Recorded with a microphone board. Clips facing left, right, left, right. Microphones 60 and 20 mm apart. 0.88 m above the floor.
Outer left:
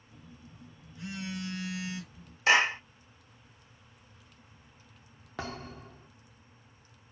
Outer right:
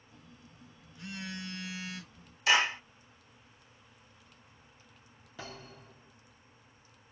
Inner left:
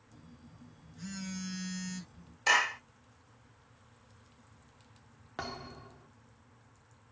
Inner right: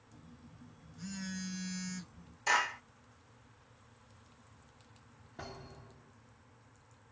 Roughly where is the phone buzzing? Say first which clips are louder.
Outer left 4 dB, inner left 1 dB; centre.